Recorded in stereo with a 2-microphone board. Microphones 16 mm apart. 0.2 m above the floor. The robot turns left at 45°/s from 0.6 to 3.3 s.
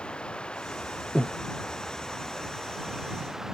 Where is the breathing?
45° right (ahead or behind); by 1.4 s 35° right (ahead or behind).